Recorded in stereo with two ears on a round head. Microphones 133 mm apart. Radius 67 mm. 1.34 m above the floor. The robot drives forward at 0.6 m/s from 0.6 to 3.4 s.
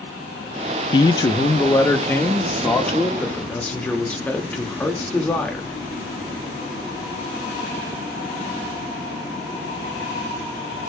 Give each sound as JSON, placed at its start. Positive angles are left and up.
{"t": 0.9, "sound": "a man speaking", "side_deg": 30, "distance_m": 0.7}